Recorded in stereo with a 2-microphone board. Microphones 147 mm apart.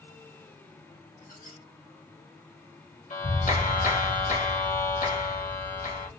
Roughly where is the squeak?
Left.